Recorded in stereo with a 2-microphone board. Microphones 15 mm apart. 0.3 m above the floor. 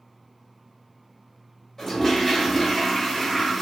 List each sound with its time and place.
1.8 s a toilet flushing: 30° left (ahead or behind), 1.2 m